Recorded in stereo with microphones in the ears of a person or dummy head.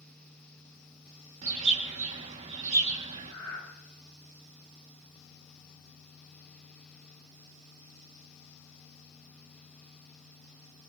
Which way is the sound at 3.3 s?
15° left (ahead or behind).